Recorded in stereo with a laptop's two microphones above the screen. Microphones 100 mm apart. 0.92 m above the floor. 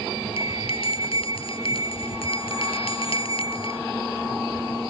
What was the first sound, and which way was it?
A bell, 65° left (ahead or behind).